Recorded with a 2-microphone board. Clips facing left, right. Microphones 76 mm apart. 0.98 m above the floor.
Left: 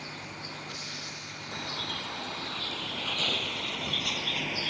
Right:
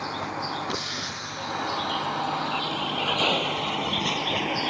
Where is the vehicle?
90° right; by 4.7 s 75° right (ahead or behind).